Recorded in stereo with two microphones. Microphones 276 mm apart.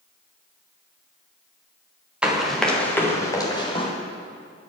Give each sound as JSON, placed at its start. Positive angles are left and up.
{"t": 2.2, "sound": "running footsteps", "side_deg": -5, "distance_m": 4.0}